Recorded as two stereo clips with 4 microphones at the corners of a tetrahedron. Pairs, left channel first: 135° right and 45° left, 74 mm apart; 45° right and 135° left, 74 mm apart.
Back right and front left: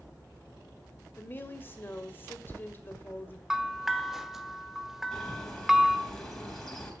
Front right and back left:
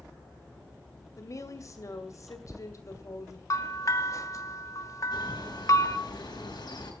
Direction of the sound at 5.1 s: 50° right.